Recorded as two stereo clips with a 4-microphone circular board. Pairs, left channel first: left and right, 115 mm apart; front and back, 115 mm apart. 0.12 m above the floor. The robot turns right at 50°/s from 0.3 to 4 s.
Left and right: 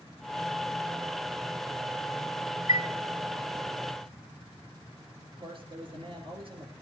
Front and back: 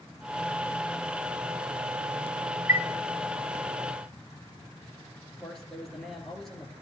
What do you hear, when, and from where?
2.7 s a chime: 125° right, 0.8 m; by 2.9 s 115° right, 0.8 m
5.2 s a man speaking: 85° right, 2.5 m